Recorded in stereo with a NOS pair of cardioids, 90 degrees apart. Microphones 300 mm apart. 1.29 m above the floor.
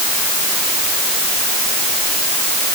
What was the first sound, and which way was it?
Only background noise.